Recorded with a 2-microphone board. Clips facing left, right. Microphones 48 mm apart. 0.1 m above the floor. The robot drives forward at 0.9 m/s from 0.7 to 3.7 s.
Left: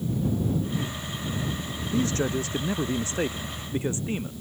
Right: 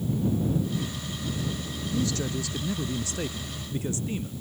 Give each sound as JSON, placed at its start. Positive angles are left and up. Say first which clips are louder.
{"t": 1.9, "sound": "a man speaking", "louder": "left 4 dB", "side_deg": 35}